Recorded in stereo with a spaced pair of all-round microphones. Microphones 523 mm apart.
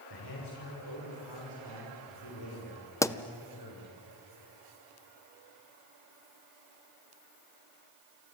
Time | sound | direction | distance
0.1 | a man speaking | 50° left (ahead or behind) | 6.5 m
3.0 | a pop | 5° left (ahead or behind) | 0.6 m